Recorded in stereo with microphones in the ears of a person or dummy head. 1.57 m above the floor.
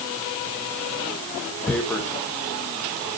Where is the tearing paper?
10° left (ahead or behind), 1.5 m.